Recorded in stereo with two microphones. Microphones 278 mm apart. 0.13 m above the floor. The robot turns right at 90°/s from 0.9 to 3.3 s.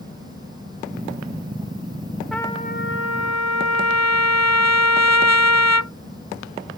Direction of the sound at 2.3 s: Straight ahead.